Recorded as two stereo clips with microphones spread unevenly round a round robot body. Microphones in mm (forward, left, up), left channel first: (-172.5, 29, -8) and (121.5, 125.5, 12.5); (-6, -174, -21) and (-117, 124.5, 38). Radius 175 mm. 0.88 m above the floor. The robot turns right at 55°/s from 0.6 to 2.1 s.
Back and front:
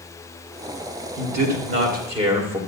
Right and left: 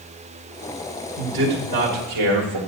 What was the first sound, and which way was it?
A man speaking, 40° left.